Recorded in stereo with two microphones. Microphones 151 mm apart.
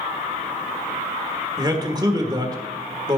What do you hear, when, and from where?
1.6 s a man speaking: 25° right (ahead or behind), 1.4 m